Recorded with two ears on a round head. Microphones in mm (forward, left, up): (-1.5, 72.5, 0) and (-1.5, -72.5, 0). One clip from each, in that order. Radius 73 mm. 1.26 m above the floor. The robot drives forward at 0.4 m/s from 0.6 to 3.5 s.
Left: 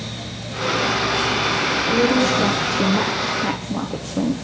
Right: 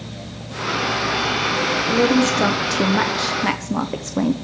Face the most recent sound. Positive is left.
turn(degrees=-45)  # may be behind; listen again after turning